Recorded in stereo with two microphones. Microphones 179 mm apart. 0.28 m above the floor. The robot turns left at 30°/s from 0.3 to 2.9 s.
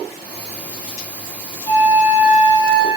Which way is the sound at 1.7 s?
135° left.